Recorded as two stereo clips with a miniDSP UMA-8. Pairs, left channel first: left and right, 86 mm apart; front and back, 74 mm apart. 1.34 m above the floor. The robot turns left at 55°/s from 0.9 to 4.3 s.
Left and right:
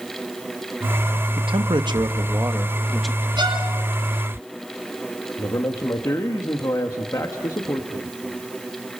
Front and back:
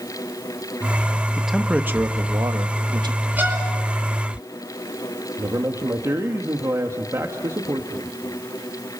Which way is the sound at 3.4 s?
115° right.